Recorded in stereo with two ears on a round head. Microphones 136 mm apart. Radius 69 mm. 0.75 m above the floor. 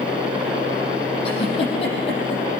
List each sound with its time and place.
1.2 s a giggle: 40° left (ahead or behind), 5.5 m